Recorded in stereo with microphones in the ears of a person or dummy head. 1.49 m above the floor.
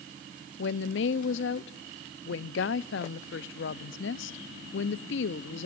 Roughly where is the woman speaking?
Left.